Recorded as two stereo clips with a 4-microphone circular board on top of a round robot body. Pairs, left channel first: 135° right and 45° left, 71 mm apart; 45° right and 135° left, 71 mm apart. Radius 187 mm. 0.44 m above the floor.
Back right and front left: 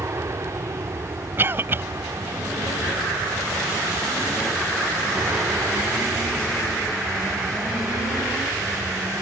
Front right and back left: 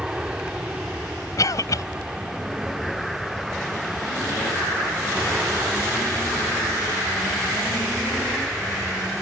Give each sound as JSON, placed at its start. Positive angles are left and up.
{"t": 0.0, "sound": "an aircraft", "azimuth_deg": 60}
{"t": 1.4, "sound": "a cough", "azimuth_deg": -10}